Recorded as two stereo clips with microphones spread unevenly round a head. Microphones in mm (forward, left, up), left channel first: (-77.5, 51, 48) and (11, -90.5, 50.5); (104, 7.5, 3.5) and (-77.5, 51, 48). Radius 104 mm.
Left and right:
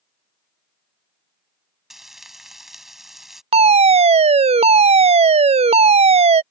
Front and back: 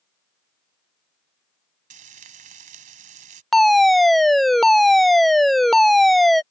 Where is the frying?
145° right.